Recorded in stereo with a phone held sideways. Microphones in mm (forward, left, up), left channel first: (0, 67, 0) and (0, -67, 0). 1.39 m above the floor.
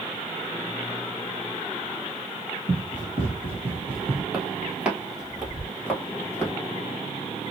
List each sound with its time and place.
2.7 s running footsteps: 35° right (ahead or behind), 1.7 m; by 4.2 s 30° right (ahead or behind), 1.9 m
4.3 s footsteps: 15° right (ahead or behind), 2.0 m; by 6.5 s 20° left (ahead or behind), 1.6 m